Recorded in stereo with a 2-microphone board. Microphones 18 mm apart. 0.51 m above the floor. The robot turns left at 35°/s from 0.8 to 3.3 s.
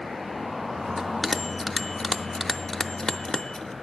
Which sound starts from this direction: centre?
A bell, at 1.0 s.